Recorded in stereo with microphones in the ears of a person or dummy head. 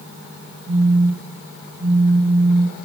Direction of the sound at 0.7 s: 80° right.